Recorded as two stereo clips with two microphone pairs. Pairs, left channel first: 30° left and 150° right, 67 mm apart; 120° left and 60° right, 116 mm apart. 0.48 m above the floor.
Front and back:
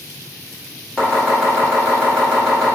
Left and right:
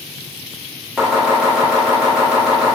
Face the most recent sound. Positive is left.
turn(degrees=5)